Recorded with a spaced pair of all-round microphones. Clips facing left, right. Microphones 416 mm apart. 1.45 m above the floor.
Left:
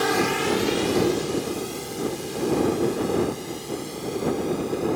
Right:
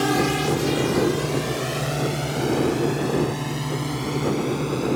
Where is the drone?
45° right (ahead or behind); by 5.0 s 80° right.